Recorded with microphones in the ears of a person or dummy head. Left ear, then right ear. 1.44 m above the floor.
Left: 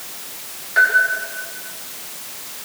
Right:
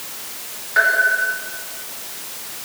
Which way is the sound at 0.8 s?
15° left (ahead or behind).